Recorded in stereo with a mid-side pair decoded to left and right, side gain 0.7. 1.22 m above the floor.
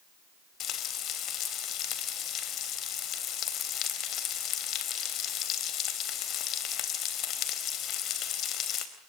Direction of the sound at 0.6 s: 50° left.